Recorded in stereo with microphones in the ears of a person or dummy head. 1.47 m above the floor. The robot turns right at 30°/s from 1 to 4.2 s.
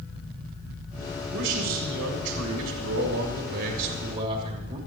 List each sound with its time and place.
1.3 s a man speaking: 120° right, 2.5 m; by 4.8 s 35° right, 2.5 m